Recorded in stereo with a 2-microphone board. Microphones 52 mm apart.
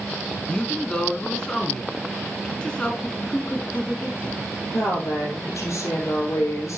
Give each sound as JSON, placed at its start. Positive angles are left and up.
{"t": 0.5, "sound": "a woman speaking", "side_deg": 15, "distance_m": 1.1}
{"t": 3.0, "sound": "a man speaking", "side_deg": 25, "distance_m": 1.2}
{"t": 4.7, "sound": "a woman speaking", "side_deg": 70, "distance_m": 4.0}